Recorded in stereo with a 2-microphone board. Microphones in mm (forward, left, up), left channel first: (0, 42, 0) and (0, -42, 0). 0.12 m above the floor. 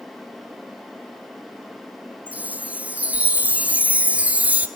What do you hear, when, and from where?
2.3 s a chime: 15° right (ahead or behind), 0.9 m